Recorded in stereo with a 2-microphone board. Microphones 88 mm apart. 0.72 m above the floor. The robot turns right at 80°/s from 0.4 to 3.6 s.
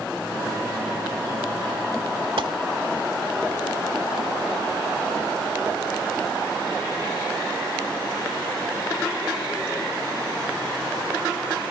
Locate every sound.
2.4 s a gunshot: 75° right (ahead or behind), 1.2 m; by 2.5 s 70° right (ahead or behind), 1.2 m